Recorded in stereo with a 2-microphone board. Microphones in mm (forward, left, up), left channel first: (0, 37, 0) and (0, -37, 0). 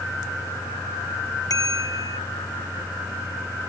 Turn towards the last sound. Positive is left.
turn(degrees=55)  # may be behind; listen again after turning